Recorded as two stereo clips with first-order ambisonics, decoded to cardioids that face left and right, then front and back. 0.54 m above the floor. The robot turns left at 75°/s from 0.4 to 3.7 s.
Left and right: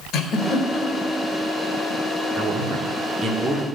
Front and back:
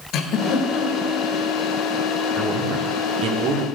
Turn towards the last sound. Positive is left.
turn(degrees=165)